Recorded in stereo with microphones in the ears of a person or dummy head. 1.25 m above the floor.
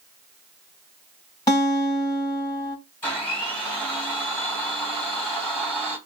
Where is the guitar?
30° left (ahead or behind), 3 m.